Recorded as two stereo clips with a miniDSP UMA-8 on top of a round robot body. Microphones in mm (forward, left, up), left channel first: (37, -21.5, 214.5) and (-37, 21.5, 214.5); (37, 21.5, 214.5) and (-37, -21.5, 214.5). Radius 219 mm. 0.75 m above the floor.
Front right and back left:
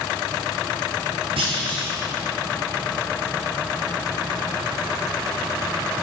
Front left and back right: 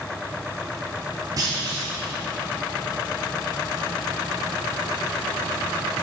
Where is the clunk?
160° left, 1.0 m.